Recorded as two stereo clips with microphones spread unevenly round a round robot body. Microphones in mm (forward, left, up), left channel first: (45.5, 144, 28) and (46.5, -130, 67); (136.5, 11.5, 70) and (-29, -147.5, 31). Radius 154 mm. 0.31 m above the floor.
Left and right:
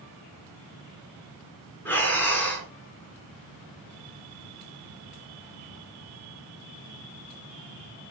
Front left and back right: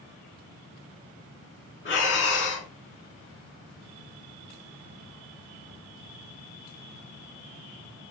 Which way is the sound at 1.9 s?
5° left.